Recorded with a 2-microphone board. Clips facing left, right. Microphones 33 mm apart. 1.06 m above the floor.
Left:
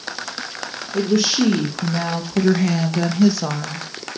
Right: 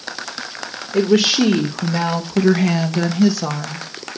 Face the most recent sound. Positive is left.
turn(degrees=10)  # may be behind; listen again after turning